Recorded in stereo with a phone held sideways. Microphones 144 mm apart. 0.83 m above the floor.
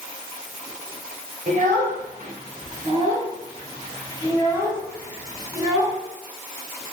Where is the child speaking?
85° right, 3 m; by 5.9 s 20° right (ahead or behind), 7 m.